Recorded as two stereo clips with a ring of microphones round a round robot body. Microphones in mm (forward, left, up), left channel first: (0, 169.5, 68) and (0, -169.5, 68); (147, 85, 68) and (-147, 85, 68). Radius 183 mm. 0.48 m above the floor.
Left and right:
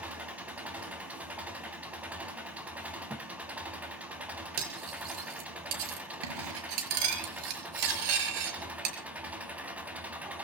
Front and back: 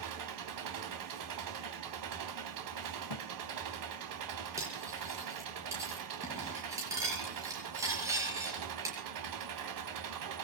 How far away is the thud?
About 1.0 m.